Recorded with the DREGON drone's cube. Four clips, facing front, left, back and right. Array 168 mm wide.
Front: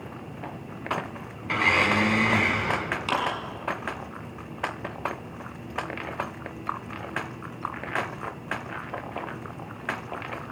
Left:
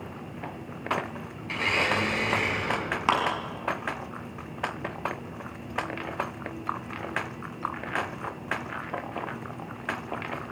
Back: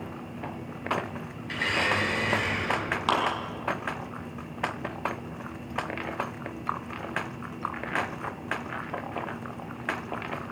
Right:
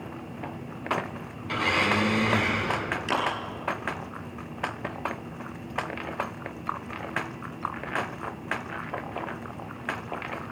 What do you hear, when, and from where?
1.4 s a blender: 15° right, 5 m
3.1 s a clap: 115° left, 6 m